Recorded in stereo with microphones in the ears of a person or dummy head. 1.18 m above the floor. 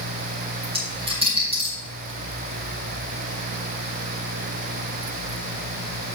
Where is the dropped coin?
35° right (ahead or behind), 4 m.